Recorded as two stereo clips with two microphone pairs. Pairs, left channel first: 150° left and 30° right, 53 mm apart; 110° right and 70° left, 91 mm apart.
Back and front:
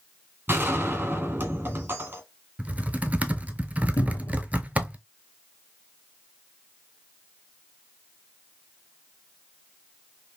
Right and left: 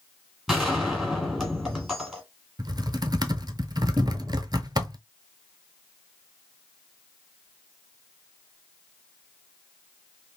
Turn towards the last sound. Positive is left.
turn(degrees=130)